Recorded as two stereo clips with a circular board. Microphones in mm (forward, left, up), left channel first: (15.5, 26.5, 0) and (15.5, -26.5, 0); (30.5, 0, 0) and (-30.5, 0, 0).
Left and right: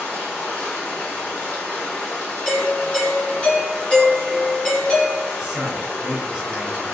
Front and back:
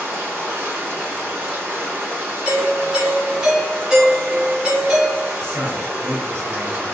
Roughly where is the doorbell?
Behind left.